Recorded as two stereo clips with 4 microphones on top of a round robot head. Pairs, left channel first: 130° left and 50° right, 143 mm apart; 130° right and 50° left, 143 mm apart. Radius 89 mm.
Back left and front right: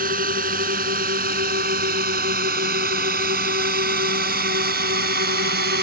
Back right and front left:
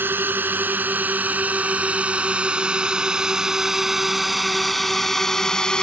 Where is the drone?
25° right; by 5.8 s 45° right.